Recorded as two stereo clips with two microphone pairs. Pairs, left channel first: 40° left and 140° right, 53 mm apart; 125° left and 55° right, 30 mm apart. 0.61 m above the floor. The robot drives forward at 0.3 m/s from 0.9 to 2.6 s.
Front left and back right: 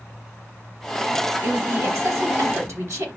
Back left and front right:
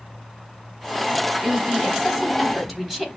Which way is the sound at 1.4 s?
145° right.